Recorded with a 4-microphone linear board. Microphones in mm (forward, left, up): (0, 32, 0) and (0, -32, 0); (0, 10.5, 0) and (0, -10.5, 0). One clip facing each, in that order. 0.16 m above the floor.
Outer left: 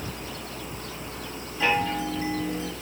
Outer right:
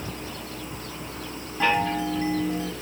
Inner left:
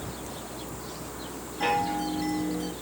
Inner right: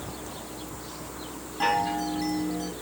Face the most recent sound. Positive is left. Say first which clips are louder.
# outer right 2 dB, inner right 1 dB
turn(degrees=-45)  # may be behind; listen again after turning